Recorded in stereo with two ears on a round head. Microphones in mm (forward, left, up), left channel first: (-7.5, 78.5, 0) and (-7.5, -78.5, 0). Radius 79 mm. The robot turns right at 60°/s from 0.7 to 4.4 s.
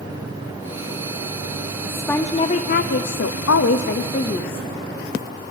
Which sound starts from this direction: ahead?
A woman speaking, at 1.9 s.